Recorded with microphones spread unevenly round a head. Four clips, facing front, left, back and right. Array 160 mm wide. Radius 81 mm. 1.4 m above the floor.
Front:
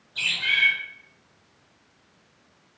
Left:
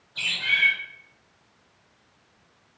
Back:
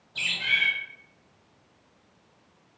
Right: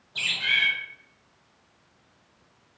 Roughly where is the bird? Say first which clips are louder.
Left 1 dB, front 2 dB; behind right.